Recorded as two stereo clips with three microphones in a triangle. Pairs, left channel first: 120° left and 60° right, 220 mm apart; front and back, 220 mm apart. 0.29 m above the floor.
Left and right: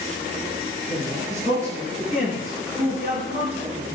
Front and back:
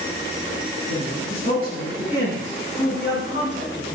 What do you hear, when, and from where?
0.9 s a man speaking: straight ahead, 4 m; by 4.0 s 35° right, 2.5 m